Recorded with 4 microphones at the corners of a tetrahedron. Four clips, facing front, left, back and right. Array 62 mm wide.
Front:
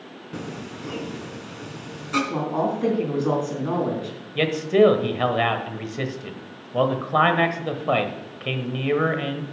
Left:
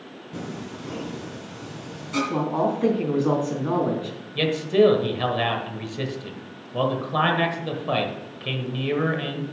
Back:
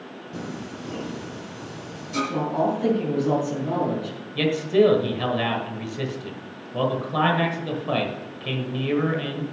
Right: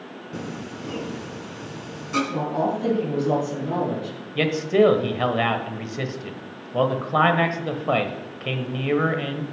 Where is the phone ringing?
I don't hear a phone ringing.